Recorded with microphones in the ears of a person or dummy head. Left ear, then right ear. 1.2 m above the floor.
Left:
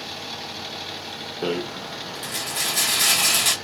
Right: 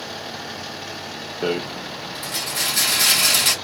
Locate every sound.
1.4 s a rattle: centre (ahead or behind), 1.3 m